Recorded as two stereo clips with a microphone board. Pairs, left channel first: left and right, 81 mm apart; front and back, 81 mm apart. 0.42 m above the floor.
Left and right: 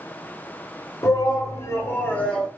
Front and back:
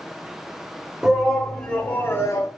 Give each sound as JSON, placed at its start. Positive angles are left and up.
{"t": 1.0, "sound": "a shout", "azimuth_deg": 100, "distance_m": 1.1}